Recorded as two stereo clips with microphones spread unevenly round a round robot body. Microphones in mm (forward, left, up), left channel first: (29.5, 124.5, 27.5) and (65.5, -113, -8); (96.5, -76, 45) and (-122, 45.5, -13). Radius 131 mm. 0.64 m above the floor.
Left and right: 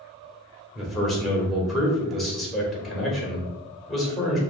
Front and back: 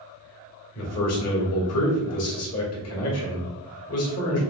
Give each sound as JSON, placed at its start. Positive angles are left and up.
{"t": 0.8, "sound": "a man speaking", "azimuth_deg": 5, "distance_m": 1.7}